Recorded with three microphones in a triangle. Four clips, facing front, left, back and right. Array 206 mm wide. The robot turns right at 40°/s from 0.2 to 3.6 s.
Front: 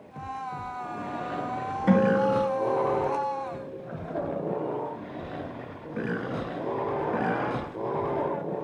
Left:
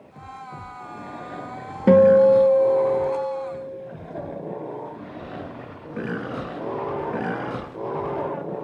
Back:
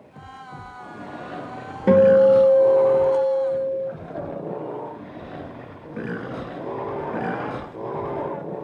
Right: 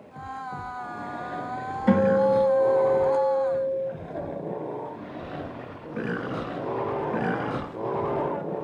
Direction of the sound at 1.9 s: 120° left.